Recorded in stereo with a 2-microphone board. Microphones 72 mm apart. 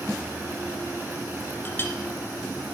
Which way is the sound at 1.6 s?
35° left (ahead or behind).